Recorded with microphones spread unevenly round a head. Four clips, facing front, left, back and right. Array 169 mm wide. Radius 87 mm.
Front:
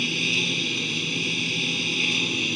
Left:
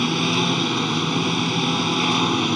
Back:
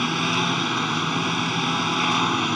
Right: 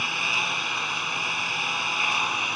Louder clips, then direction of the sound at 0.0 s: Left 8 dB, back 6 dB; 110° left.